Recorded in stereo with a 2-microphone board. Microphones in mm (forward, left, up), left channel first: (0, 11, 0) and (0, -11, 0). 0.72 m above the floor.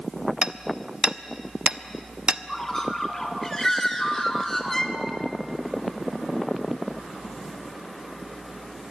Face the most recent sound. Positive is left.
turn(degrees=20)  # may be behind; listen again after turning